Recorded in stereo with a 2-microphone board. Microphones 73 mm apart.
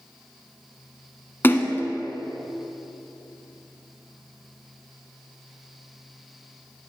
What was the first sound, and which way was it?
A splash, 30° left (ahead or behind).